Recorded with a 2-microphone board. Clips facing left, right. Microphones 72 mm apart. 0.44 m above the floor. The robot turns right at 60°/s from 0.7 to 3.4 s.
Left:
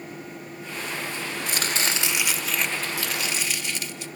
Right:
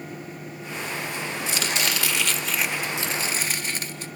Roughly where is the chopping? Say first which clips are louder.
Even; behind left.